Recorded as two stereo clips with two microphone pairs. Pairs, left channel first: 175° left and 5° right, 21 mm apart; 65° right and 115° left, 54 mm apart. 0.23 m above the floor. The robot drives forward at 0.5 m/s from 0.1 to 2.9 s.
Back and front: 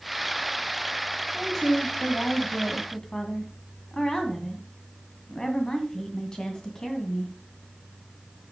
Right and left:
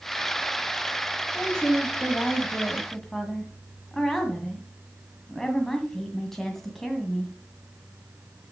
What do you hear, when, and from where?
1.3 s a woman speaking: 115° right, 1.6 m; by 7.3 s 145° right, 2.0 m